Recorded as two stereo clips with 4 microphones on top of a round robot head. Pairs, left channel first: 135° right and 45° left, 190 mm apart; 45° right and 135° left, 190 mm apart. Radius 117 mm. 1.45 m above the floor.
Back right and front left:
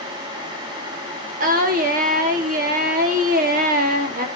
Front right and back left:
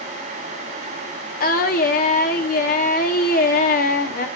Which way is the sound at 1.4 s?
Straight ahead.